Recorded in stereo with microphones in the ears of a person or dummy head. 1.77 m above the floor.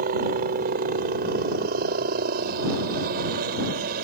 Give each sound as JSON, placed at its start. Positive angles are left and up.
{"t": 0.0, "sound": "a helicopter", "side_deg": -50}